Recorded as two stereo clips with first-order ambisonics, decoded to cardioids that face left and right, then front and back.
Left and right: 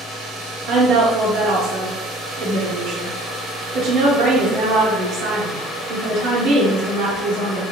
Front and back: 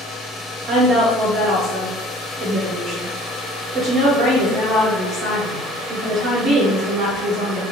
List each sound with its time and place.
0.7 s a woman speaking: 120° right, 1.0 m